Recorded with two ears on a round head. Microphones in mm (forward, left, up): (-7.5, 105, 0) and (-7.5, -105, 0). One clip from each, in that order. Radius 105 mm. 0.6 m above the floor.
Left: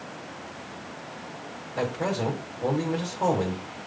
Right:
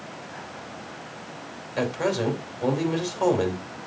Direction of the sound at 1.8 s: 65° right (ahead or behind).